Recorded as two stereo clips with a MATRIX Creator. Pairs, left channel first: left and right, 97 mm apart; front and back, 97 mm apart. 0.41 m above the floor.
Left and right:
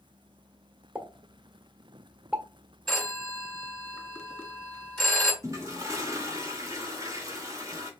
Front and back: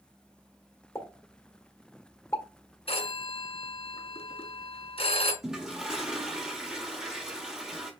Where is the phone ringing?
5° left, 1.8 m.